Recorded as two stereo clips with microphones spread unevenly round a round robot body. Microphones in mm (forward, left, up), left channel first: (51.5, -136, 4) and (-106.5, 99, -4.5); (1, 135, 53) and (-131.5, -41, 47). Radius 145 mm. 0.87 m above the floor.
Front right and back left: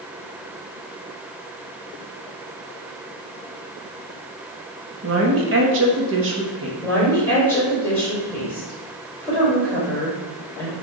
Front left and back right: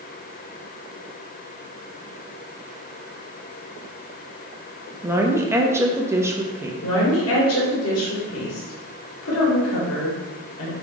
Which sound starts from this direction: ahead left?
A woman speaking, at 6.8 s.